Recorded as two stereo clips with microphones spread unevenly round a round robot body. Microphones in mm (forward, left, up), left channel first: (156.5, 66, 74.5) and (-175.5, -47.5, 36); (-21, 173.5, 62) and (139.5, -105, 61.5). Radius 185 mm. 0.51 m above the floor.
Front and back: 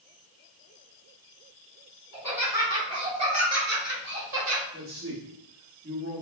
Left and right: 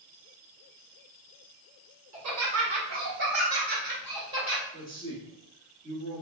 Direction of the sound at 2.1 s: 80° right.